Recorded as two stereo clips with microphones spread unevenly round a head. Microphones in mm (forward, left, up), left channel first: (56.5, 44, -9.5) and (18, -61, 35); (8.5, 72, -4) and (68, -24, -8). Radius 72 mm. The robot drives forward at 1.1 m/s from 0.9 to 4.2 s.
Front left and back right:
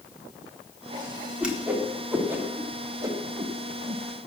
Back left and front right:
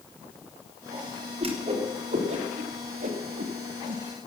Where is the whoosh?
25° right, 4 m; by 4.0 s 75° right, 1.8 m.